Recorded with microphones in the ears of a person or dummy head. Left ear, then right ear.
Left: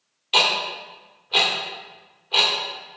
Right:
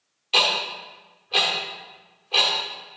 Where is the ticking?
10° left (ahead or behind), 1.4 m.